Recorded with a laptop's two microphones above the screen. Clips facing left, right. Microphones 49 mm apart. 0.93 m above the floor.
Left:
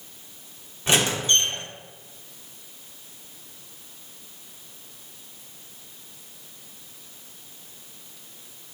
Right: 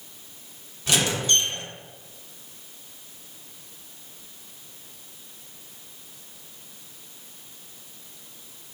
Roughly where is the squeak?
Left.